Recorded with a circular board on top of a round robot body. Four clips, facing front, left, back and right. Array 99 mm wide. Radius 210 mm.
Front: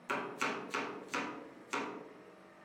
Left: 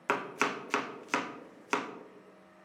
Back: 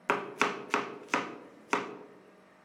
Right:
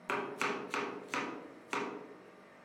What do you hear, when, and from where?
0.1 s chopping: 155° left, 0.8 m